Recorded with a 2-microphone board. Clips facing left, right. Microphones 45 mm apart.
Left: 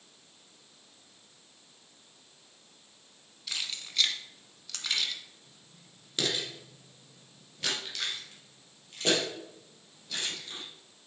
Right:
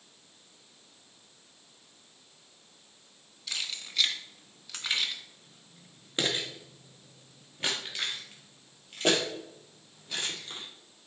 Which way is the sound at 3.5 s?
5° left (ahead or behind).